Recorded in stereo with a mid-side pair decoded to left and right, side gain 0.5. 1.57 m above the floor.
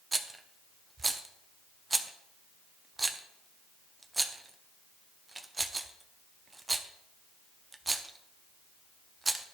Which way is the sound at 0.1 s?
20° right.